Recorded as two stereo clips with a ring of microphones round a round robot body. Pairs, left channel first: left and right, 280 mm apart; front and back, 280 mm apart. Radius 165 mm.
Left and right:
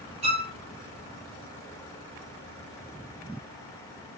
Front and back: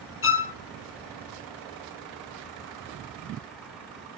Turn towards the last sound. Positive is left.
turn(degrees=-25)